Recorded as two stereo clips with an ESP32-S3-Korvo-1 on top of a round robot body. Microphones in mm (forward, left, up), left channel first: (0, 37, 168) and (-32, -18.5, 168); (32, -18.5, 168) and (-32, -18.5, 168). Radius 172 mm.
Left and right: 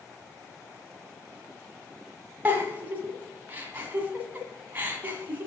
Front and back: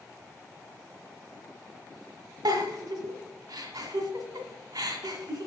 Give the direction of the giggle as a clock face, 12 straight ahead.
6 o'clock.